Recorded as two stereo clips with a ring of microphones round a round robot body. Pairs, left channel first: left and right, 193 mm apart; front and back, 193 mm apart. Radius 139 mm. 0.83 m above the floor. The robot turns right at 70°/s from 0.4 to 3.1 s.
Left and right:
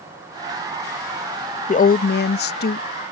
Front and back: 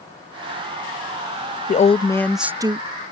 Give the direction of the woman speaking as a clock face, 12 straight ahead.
11 o'clock.